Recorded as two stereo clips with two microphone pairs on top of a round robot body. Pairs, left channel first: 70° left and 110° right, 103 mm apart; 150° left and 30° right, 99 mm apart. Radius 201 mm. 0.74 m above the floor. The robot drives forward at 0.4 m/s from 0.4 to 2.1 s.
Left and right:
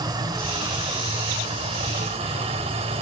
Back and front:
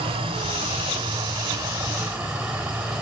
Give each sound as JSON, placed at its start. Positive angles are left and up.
{"t": 0.0, "sound": "running water", "azimuth_deg": -60, "distance_m": 0.9}